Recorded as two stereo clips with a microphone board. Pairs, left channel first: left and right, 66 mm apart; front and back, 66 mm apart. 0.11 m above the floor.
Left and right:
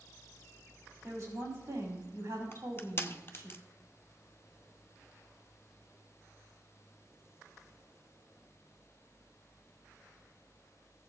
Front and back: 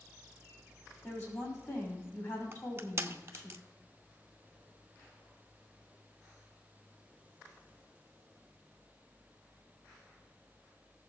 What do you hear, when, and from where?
1.0 s a woman speaking: 45° right, 5.5 m
2.5 s crushing: 135° left, 0.7 m